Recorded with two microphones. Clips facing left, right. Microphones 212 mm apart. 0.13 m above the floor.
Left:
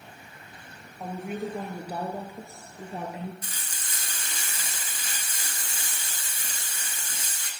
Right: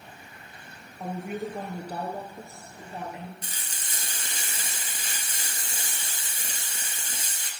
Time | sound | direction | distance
1.0 | a woman speaking | 5° right (ahead or behind) | 1.9 m
3.4 | frying | 25° right (ahead or behind) | 1.5 m